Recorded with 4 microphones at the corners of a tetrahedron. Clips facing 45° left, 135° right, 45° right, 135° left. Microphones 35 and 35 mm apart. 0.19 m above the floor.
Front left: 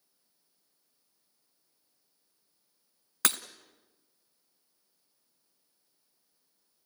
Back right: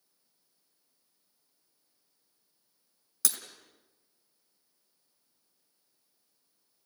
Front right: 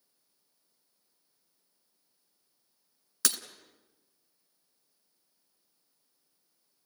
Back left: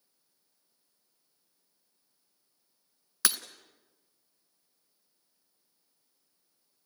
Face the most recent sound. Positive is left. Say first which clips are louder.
# front left 7 dB, back left 1 dB
turn(degrees=65)